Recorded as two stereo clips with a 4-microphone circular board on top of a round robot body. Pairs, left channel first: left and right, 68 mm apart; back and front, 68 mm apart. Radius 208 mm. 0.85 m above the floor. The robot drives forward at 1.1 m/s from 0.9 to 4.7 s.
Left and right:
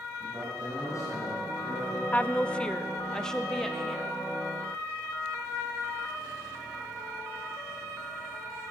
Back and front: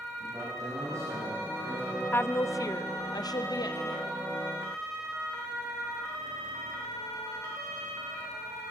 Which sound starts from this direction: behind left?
A woman speaking, at 2.1 s.